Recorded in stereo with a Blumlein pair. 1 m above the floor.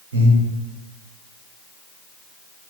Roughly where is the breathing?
Ahead right.